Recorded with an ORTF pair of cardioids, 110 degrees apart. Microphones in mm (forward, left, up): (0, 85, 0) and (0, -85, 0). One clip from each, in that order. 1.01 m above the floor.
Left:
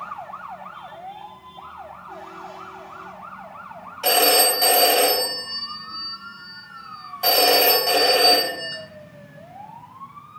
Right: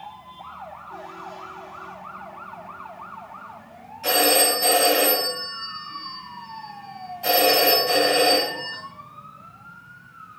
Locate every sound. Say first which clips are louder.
4.0 s a phone ringing: left 2 dB; 50° left, 2 m